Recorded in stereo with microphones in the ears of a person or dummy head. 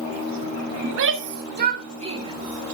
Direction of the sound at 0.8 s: 70° right (ahead or behind).